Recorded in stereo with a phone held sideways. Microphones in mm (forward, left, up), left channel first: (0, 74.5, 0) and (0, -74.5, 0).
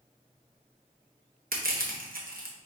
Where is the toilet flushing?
I don't hear a toilet flushing.